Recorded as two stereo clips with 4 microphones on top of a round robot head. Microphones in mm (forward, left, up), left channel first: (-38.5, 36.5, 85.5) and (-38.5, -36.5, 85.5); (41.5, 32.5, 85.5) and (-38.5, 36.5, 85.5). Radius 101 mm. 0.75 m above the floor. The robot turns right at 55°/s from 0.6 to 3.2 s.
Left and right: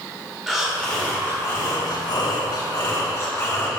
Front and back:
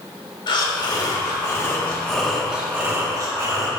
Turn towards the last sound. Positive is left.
turn(degrees=145)